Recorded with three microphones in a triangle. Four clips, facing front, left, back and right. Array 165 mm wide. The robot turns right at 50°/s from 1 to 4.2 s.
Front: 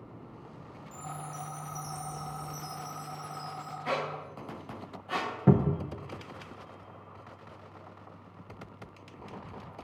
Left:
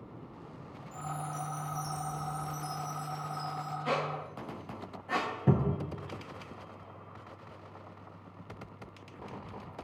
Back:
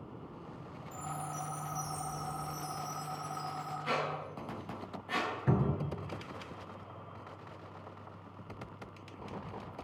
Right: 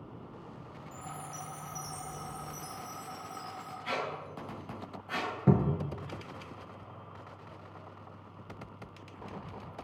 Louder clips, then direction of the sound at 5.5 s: Right 2 dB, front 9 dB; 5° right.